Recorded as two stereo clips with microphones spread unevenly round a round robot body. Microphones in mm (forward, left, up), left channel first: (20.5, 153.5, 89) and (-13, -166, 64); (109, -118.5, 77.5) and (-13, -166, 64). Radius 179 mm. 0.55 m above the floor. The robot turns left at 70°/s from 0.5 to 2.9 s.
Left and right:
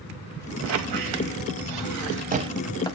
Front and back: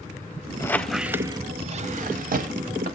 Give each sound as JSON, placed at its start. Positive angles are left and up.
{"t": 0.6, "sound": "a squeak", "azimuth_deg": -45, "distance_m": 0.6}